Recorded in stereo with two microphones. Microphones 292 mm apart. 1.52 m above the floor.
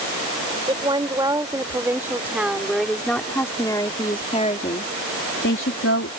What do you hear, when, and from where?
0.7 s a woman speaking: 15° right (ahead or behind); by 6.1 s 50° left (ahead or behind)